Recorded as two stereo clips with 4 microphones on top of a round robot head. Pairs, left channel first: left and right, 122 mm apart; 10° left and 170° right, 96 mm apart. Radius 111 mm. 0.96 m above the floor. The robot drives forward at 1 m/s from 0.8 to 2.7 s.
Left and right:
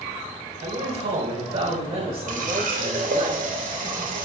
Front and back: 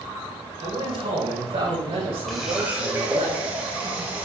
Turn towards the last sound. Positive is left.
turn(degrees=-90)